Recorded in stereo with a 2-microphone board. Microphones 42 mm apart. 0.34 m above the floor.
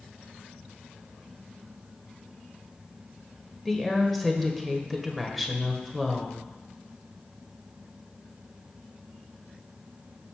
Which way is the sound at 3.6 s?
5° left (ahead or behind).